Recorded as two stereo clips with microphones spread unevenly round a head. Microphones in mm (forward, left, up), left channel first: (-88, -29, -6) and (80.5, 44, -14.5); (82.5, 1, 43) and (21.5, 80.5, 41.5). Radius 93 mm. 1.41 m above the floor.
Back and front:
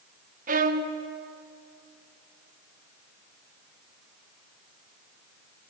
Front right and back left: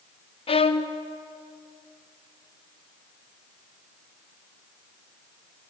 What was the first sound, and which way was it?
A violin, 25° right.